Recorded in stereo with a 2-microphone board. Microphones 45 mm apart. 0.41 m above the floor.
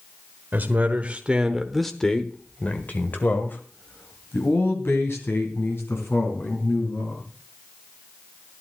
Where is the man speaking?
45° right (ahead or behind), 1.2 m; by 7.2 s 70° left (ahead or behind), 4 m.